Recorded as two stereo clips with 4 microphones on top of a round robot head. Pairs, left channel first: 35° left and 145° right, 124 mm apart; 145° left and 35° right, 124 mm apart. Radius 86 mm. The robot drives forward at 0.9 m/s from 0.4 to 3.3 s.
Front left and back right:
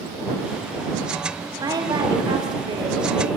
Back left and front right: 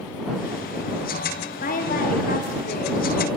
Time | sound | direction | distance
1.6 | a woman speaking | 155° left | 4 m